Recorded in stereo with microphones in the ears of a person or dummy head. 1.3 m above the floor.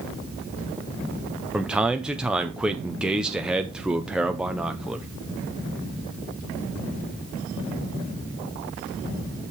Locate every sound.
1.5 s a man speaking: centre (ahead or behind), 0.6 m